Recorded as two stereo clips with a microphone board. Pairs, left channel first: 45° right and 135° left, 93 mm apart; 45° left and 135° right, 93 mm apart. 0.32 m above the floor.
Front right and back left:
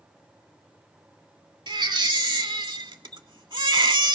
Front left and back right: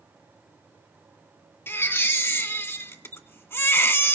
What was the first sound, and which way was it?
A baby crying, 110° left.